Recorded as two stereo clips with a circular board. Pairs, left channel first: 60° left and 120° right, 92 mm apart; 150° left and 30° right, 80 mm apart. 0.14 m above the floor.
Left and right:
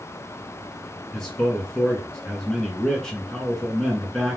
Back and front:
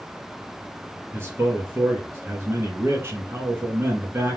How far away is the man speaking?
About 1.8 m.